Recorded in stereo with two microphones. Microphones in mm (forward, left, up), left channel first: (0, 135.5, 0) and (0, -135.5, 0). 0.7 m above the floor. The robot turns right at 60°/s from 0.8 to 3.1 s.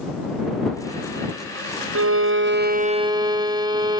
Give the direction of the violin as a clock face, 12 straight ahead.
3 o'clock.